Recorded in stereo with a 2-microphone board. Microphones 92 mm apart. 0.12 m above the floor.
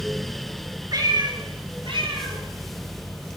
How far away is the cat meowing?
About 1.1 m.